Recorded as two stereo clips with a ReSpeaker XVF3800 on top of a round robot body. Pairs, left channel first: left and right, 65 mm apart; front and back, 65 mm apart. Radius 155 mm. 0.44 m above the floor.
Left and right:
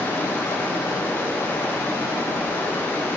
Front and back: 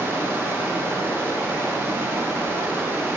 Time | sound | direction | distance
0.0 | running water | 135° left | 1.5 m